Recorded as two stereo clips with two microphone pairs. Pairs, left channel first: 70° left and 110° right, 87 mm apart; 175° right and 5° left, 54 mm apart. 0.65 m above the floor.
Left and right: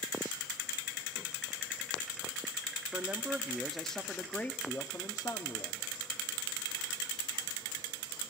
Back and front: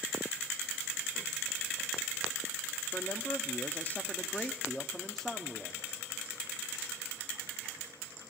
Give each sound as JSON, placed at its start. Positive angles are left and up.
{"t": 2.9, "sound": "a man speaking", "azimuth_deg": -170, "distance_m": 1.1}